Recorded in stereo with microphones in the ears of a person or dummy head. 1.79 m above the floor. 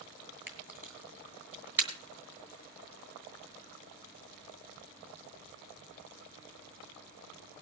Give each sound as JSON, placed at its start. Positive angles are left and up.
{"t": 0.5, "sound": "a camera shutter", "side_deg": -5, "distance_m": 3.0}